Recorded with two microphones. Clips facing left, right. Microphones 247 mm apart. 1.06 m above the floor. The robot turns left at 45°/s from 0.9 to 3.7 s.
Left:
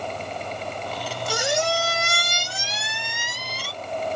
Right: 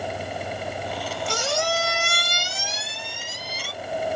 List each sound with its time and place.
1.3 s a squeak: 175° left, 0.6 m; by 3.7 s 65° left, 0.6 m